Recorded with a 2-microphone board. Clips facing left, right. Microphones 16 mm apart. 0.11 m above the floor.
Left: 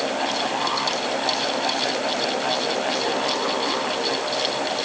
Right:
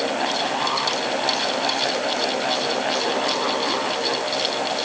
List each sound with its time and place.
Only background noise.